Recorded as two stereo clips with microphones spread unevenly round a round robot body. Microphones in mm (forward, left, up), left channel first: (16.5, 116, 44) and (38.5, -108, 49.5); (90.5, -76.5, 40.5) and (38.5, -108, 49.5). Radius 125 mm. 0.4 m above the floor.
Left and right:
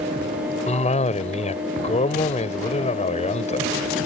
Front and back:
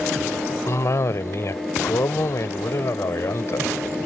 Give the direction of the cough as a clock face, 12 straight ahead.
11 o'clock.